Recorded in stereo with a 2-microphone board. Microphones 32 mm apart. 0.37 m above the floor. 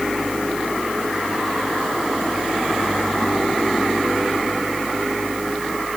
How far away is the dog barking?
I don't hear a dog barking.